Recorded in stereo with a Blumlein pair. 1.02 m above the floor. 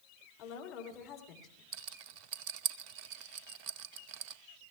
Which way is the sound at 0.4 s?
30° left.